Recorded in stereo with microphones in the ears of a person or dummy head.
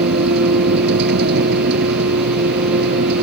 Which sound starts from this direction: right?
A vehicle, at 0.0 s.